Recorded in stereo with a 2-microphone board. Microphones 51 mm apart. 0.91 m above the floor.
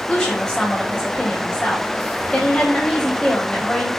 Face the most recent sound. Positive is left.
turn(degrees=15)  # may be behind; listen again after turning